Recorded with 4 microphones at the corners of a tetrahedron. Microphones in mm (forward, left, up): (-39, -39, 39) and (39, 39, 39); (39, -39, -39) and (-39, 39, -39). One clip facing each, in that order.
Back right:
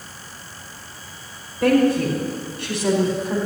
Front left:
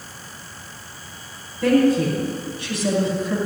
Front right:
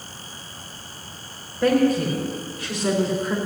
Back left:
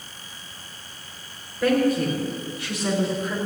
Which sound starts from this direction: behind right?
A woman speaking, at 1.6 s.